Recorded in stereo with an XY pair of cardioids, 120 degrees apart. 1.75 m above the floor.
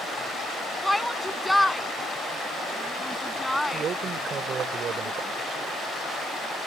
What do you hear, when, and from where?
0.8 s a shout: 5° left
3.7 s a man speaking: 45° right